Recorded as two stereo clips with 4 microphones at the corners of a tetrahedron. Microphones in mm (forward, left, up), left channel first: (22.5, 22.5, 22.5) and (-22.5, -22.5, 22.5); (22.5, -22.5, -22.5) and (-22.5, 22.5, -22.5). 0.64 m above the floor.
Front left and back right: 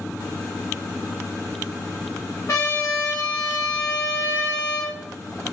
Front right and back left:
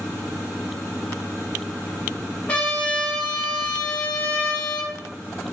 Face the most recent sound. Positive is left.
turn(degrees=20)